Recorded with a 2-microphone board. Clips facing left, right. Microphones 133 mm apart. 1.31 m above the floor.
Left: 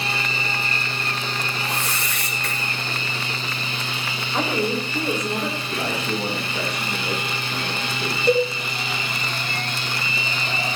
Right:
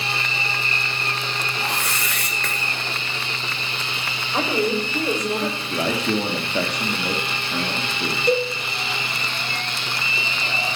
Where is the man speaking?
70° right (ahead or behind), 2.5 m.